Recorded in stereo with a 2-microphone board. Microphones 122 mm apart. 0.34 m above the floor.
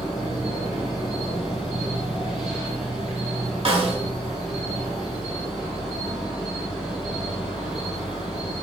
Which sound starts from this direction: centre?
An insect, at 0.0 s.